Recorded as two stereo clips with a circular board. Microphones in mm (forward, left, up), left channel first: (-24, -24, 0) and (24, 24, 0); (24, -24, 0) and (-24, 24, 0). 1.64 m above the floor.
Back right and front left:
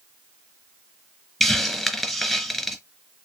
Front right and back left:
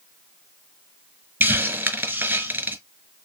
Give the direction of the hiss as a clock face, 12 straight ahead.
7 o'clock.